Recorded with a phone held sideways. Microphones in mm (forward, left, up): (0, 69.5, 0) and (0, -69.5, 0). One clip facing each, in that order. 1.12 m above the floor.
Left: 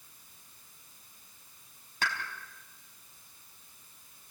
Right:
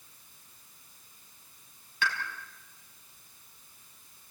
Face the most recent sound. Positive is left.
turn(degrees=45)  # may be behind; listen again after turning